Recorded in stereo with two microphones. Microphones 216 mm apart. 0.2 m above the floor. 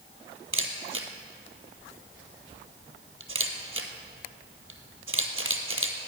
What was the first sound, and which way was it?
A camera shutter, 70° right (ahead or behind).